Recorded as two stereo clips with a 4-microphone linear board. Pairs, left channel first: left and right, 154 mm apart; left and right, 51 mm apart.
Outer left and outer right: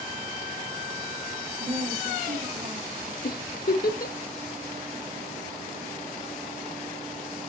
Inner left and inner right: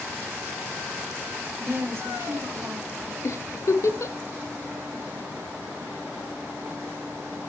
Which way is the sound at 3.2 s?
75° left (ahead or behind).